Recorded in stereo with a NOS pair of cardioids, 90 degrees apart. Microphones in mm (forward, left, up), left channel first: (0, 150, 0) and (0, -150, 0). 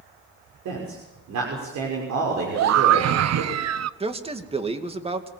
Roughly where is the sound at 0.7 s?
Right.